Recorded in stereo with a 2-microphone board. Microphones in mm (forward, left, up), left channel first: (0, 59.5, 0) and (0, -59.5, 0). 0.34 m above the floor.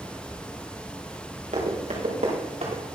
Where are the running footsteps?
85° right, 4.5 m; by 2.8 s 70° right (ahead or behind), 5 m.